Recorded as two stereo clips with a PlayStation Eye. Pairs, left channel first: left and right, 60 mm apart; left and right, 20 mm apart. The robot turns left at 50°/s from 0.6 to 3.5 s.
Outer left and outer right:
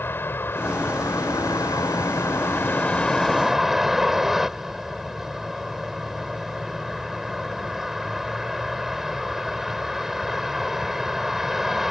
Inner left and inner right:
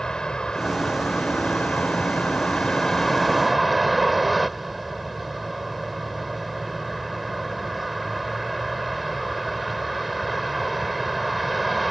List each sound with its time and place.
0.0 s a vehicle: 140° left; by 11.9 s 5° right